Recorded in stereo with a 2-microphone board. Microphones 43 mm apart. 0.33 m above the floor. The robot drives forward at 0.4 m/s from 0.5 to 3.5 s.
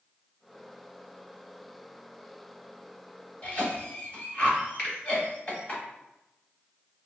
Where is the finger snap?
25° left (ahead or behind), 1.9 m.